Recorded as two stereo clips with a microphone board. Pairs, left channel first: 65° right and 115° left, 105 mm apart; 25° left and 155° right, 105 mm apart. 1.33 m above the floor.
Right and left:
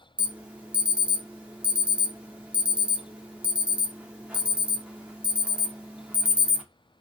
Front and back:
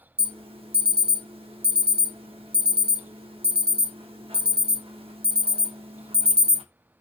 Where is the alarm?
170° right, 0.6 m.